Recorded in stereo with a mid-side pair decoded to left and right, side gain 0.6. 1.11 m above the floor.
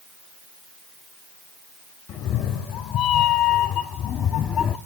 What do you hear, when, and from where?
2.1 s a cat meowing: 60° left, 2 m; by 4.8 s 50° left, 0.7 m